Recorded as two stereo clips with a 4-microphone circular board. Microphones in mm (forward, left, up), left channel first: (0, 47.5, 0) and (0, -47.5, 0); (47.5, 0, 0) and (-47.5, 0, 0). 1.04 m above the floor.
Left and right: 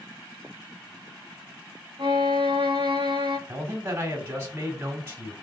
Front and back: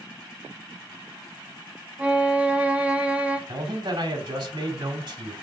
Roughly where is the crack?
I don't hear a crack.